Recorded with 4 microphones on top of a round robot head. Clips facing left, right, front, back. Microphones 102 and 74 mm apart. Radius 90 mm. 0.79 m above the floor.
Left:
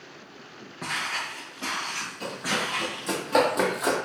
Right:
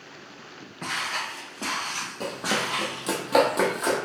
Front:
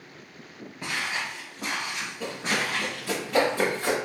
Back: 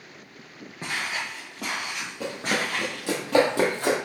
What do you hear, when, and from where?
0.8 s footsteps: 170° left, 0.8 m; by 3.1 s 110° right, 2 m
2.2 s running footsteps: 125° right, 1.2 m; by 4.0 s 165° left, 1.1 m